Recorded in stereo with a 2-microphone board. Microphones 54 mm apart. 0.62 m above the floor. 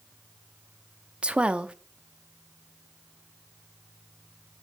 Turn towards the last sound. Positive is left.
turn(degrees=-25)  # may be behind; listen again after turning